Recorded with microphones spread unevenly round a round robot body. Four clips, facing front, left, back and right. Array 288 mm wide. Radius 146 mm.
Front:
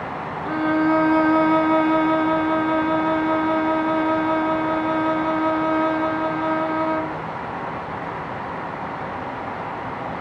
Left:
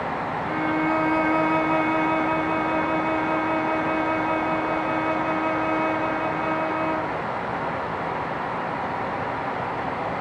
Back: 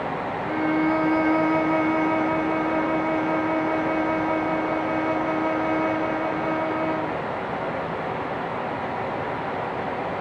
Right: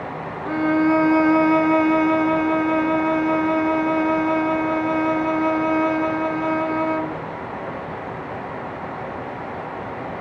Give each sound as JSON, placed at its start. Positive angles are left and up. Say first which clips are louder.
{"t": 0.5, "sound": "a violin", "louder": "right 7 dB, front 3 dB", "azimuth_deg": -80, "distance_m": 0.7}